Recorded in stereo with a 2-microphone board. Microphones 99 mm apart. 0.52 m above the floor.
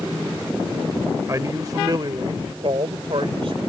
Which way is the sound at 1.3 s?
30° right (ahead or behind).